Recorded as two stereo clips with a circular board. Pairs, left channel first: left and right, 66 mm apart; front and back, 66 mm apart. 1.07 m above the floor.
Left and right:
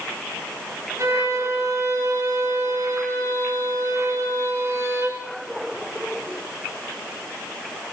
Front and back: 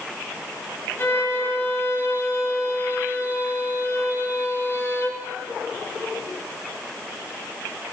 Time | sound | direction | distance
1.0 | a violin | 50° right | 4 m